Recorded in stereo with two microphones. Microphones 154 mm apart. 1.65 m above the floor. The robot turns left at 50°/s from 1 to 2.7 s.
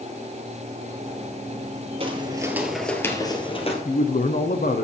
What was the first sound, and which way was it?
Footsteps, 35° right (ahead or behind).